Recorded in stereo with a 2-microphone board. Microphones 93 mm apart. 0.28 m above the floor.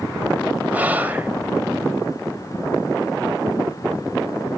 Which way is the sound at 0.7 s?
20° right (ahead or behind).